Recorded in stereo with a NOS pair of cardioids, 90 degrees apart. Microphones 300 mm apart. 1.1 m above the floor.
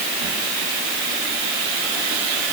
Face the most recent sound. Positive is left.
No sound to turn to.